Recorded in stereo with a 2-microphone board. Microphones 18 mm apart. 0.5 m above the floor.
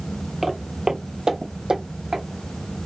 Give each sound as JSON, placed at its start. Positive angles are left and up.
{"t": 0.4, "sound": "footsteps", "side_deg": -20, "distance_m": 0.5}